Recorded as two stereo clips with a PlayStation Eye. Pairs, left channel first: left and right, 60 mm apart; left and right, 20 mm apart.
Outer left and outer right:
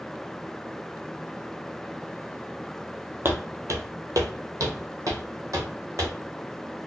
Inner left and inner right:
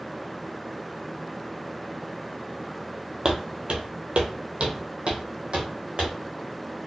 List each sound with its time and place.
3.2 s footsteps: 40° right (ahead or behind), 0.6 m; by 6.1 s 50° right (ahead or behind), 1.5 m